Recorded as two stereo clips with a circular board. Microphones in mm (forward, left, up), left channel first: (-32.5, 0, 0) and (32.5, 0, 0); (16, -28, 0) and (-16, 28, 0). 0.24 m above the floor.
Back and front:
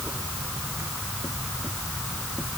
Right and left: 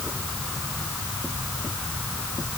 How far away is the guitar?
No guitar in this recording.